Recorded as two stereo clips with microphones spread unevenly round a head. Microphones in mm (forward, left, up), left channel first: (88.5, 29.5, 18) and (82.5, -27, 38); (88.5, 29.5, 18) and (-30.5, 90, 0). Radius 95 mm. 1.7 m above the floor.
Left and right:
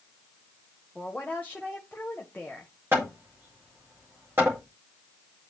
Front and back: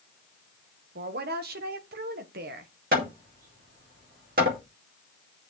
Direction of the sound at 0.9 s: 165° left.